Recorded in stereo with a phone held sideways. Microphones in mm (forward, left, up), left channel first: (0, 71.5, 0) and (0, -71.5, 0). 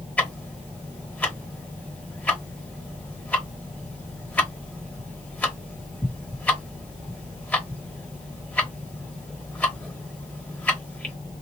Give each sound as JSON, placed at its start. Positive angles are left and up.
{"t": 0.2, "sound": "ticking", "side_deg": 10, "distance_m": 1.3}